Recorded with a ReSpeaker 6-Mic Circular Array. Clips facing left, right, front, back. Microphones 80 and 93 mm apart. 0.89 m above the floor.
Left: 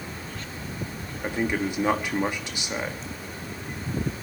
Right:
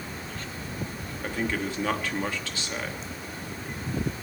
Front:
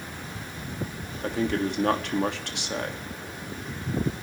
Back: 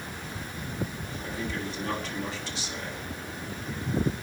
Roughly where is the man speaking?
Ahead.